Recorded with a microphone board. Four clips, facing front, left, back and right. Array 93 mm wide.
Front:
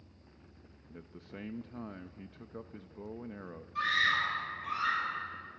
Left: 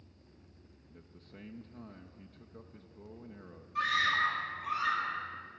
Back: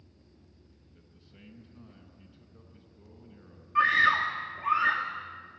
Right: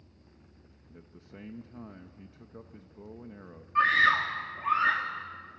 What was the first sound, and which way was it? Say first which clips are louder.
A man speaking: right 5 dB, front 15 dB; 15° right.